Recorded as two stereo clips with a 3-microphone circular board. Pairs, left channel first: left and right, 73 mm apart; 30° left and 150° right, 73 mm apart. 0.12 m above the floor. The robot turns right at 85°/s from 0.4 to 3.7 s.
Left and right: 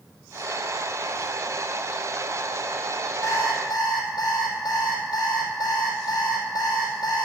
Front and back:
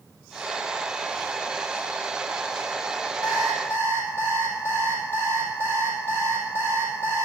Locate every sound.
3.2 s an alarm clock: 40° left, 2.5 m; by 7.2 s 80° left, 2.5 m